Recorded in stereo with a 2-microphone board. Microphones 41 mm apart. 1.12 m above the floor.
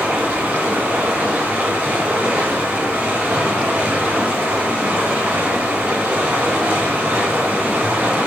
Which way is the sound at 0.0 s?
35° right (ahead or behind).